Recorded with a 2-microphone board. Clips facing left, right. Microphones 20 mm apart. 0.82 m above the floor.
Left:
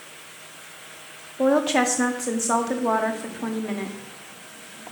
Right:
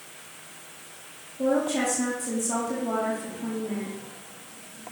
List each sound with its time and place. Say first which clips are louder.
1.4 s a woman speaking: left 5 dB; 60° left (ahead or behind), 1.1 m